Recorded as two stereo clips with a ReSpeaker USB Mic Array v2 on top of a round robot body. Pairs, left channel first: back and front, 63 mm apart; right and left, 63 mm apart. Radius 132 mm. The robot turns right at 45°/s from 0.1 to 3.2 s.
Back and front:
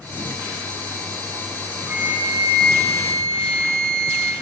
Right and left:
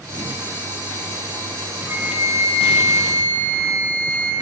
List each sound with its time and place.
1.9 s a flute: 45° left, 1.3 m; by 4.3 s 105° left, 1.3 m